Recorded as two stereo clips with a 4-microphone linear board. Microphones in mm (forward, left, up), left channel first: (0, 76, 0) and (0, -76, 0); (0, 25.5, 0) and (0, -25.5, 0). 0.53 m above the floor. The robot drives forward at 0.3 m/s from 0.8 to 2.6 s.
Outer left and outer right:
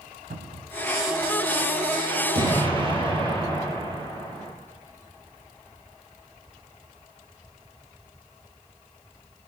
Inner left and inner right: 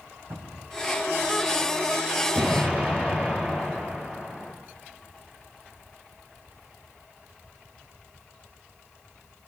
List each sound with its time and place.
0.3 s a cupboard door: 70° right (ahead or behind), 2.5 m
2.3 s an explosion: 35° right (ahead or behind), 4 m